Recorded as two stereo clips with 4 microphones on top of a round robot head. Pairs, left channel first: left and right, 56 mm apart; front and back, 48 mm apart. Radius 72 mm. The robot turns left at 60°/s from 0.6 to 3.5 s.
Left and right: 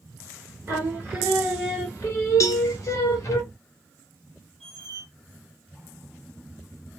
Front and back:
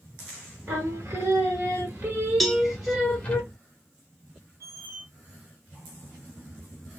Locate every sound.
0.7 s singing: 135° right, 1.6 m; by 3.4 s 65° left, 1.6 m
2.4 s a cowbell: 90° left, 0.7 m; by 2.7 s 75° left, 0.7 m
4.6 s a squeak: 170° left, 0.8 m